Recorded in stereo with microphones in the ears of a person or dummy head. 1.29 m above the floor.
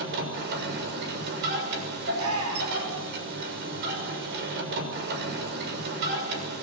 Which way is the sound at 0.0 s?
60° right (ahead or behind).